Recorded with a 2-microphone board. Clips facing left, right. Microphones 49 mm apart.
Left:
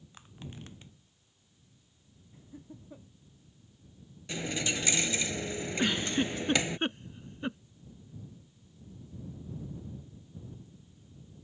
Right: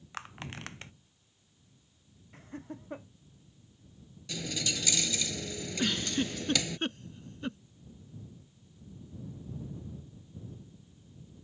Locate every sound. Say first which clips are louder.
0.1 s crushing: right 6 dB; 80° right
2.3 s laughter: right 6 dB; 80° right
4.3 s a dropped coin: left 3 dB; 30° left (ahead or behind)
5.8 s a giggle: left 2 dB; 20° left (ahead or behind)